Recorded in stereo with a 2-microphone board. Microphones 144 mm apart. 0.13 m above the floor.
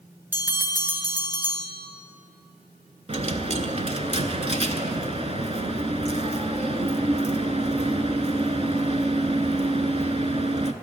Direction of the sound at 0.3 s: 15° right (ahead or behind).